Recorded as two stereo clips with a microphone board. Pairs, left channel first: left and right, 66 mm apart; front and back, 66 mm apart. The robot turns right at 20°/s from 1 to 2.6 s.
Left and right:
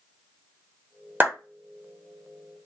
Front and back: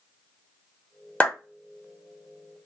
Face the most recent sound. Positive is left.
turn(degrees=-25)